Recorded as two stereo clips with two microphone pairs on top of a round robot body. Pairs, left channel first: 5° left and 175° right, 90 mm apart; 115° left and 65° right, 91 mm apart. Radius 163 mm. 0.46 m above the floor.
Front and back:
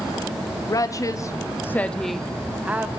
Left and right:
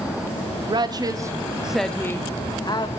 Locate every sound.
0.7 s a woman speaking: 35° right, 1.8 m; by 2.9 s 115° left, 1.9 m